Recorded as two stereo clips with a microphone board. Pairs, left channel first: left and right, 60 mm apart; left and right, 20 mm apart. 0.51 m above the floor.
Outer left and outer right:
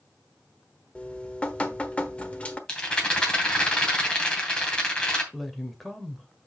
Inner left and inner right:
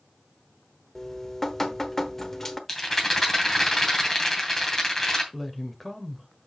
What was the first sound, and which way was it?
Dripping, 20° left (ahead or behind).